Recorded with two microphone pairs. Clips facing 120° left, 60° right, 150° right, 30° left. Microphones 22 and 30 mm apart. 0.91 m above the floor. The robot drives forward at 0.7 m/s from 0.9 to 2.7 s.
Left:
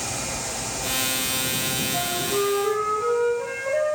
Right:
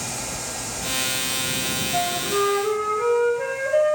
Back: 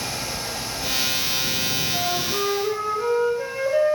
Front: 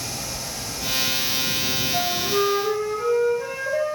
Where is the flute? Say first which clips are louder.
Right 4 dB, front 2 dB; 40° right, 0.8 m; by 4.0 s 80° right, 0.5 m.